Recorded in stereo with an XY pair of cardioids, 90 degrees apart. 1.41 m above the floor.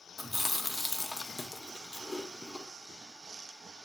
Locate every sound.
0.2 s chewing: 20° left, 0.9 m